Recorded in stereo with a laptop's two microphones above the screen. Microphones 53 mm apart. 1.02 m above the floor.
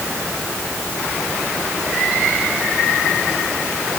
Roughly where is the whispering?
I don't hear whispering.